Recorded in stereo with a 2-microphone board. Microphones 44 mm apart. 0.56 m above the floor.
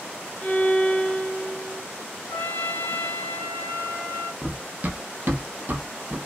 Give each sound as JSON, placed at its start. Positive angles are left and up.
{"t": 0.4, "sound": "a violin", "side_deg": 25, "distance_m": 0.6}
{"t": 2.3, "sound": "a trumpet", "side_deg": 45, "distance_m": 1.2}
{"t": 4.4, "sound": "running footsteps", "side_deg": -25, "distance_m": 0.6}